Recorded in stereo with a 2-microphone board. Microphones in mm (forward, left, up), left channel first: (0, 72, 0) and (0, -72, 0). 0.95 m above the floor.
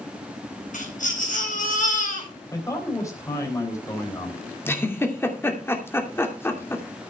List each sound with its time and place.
0.7 s a baby crying: 65° left (ahead or behind), 4.5 m
2.5 s a man speaking: 20° left (ahead or behind), 3.5 m
4.7 s a giggle: 15° left (ahead or behind), 2.5 m